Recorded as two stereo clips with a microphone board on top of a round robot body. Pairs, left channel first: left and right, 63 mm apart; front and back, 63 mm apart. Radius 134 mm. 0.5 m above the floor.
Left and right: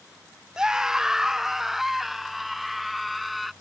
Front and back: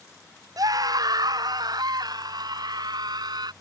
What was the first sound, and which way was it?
A scream, 170° right.